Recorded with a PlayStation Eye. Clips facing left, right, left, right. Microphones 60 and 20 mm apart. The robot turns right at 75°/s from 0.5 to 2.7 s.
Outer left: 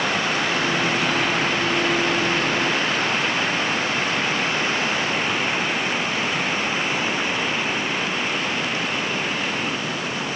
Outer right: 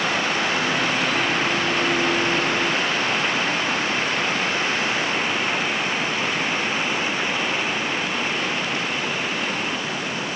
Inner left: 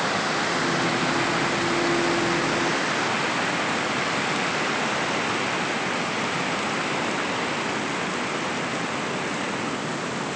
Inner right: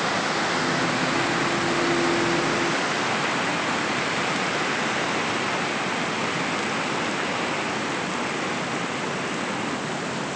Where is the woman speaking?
No woman speaking in this recording.